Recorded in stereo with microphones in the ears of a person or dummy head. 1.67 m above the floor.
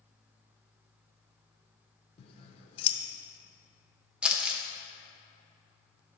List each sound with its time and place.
2.2 s scissors: 40° left (ahead or behind), 1.0 m
4.2 s crumpling: 5° right (ahead or behind), 0.9 m